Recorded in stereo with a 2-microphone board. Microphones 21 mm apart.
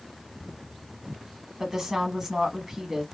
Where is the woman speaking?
25° right (ahead or behind), 1.1 m.